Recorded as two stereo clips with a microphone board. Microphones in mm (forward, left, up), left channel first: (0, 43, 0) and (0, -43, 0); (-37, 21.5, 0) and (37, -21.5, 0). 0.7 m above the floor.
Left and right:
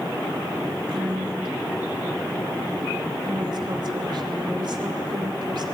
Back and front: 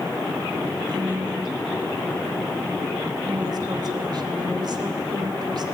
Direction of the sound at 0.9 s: 65° right.